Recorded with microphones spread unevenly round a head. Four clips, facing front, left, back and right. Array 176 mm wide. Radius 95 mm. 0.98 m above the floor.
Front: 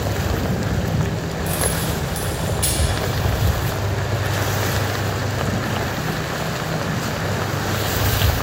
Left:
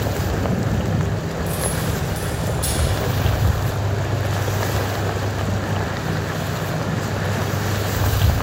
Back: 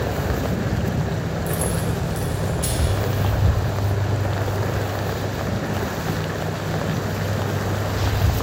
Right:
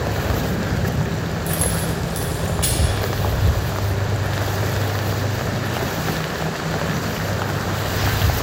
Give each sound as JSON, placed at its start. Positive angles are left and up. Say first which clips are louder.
{"t": 1.5, "sound": "keys jangling", "louder": "right 1 dB, front 2 dB", "azimuth_deg": -60, "distance_m": 1.9}